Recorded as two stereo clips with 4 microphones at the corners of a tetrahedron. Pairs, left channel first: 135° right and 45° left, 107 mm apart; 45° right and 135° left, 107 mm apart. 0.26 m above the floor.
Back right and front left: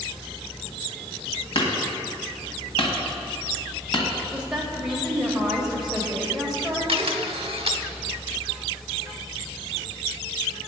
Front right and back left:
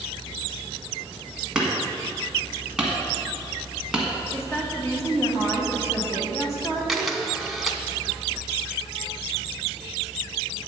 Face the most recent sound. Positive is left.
turn(degrees=45)